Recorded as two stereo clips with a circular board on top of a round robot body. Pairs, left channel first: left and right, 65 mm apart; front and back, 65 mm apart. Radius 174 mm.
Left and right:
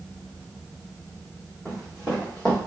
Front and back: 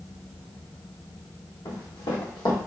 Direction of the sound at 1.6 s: 10° right.